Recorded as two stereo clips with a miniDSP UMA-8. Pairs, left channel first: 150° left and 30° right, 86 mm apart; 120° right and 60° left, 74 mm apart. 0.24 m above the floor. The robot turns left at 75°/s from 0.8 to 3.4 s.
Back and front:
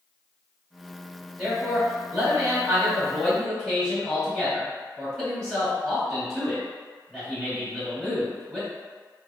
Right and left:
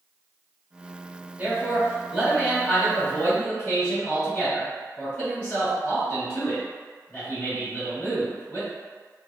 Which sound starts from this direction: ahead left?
A man speaking, at 1.4 s.